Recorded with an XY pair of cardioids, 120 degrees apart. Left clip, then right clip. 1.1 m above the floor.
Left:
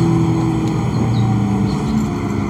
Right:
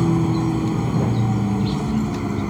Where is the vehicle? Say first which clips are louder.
Left 4 dB; 25° left.